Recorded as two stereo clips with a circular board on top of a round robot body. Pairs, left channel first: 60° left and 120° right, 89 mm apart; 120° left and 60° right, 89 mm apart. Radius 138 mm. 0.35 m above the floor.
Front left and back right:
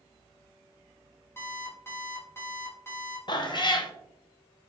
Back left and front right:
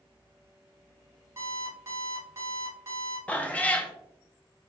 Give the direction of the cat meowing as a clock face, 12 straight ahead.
10 o'clock.